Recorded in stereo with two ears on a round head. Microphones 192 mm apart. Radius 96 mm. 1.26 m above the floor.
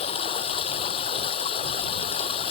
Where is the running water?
30° left (ahead or behind).